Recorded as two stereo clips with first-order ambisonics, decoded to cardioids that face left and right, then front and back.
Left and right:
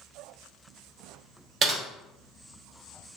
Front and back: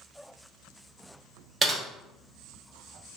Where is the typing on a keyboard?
120° right, 0.7 m.